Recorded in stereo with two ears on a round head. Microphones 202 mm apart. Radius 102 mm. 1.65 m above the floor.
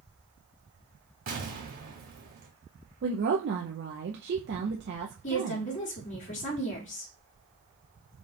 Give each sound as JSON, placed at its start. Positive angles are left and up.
{"t": 1.3, "sound": "an explosion", "side_deg": -40, "distance_m": 2.5}
{"t": 3.0, "sound": "a woman speaking", "side_deg": -50, "distance_m": 0.7}
{"t": 5.2, "sound": "a woman speaking", "side_deg": 35, "distance_m": 1.6}